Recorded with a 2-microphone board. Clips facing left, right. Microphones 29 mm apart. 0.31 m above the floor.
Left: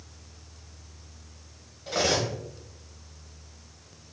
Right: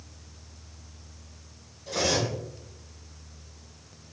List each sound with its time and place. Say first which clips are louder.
1.9 s cutlery clinking: left 1 dB; 35° left (ahead or behind), 1.1 m